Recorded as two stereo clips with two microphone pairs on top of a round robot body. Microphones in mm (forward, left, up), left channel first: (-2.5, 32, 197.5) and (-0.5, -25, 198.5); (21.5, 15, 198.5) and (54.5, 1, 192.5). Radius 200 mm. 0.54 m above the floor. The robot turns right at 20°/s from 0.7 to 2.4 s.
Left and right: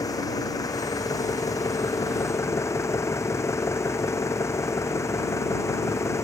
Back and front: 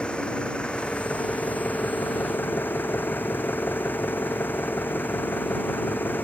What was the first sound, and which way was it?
An engine running, 95° left.